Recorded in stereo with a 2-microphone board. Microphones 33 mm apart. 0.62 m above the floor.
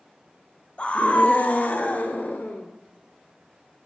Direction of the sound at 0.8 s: 35° left (ahead or behind).